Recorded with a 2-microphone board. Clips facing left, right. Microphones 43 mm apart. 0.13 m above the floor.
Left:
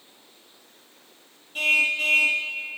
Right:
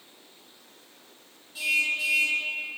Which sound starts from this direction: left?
A car horn, at 1.6 s.